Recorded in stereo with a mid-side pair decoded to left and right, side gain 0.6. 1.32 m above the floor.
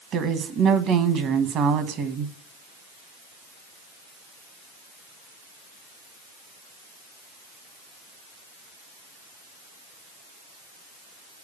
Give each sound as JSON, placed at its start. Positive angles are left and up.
{"t": 0.1, "sound": "a woman speaking", "azimuth_deg": -55, "distance_m": 1.5}